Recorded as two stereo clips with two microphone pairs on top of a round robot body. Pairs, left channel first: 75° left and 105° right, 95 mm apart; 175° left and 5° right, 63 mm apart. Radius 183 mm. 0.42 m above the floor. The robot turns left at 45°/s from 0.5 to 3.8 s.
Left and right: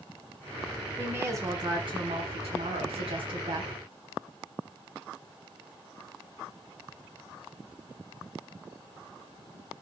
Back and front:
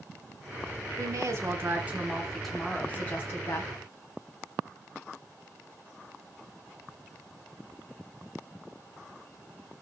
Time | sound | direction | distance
1.0 | a woman speaking | 30° right | 3.5 m